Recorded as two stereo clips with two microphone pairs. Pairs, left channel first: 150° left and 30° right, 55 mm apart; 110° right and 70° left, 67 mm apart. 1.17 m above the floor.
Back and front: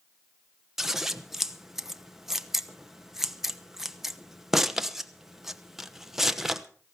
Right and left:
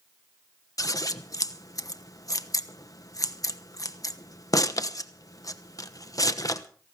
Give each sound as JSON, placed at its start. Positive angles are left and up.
{"t": 0.8, "sound": "scissors", "azimuth_deg": -115, "distance_m": 1.0}